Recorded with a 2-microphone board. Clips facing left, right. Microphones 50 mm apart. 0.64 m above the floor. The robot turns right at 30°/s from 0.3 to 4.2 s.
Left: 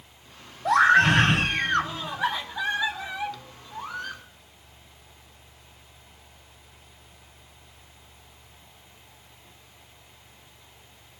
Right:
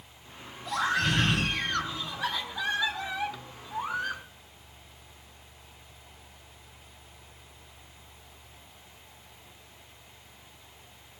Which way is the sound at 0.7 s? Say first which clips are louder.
Left 10 dB; 95° left.